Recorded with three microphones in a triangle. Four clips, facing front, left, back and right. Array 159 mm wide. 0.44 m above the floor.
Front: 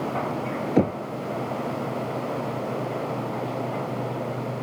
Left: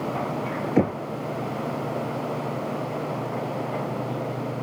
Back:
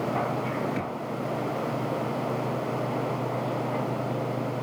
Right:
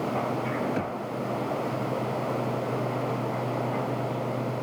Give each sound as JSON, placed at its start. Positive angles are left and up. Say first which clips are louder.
{"t": 0.8, "sound": "knocking", "louder": "left 8 dB, front 10 dB", "azimuth_deg": 45}